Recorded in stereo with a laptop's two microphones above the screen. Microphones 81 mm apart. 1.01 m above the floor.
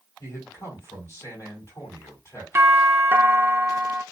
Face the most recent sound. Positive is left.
turn(degrees=-30)  # may be behind; listen again after turning